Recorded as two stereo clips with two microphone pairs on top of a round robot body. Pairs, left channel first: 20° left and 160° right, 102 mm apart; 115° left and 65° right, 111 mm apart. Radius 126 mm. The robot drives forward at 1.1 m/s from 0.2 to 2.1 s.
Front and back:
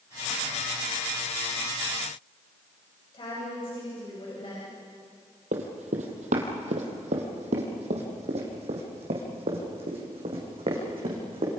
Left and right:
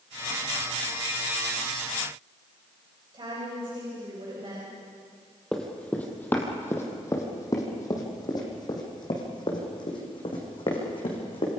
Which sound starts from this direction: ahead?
A woman speaking, at 3.1 s.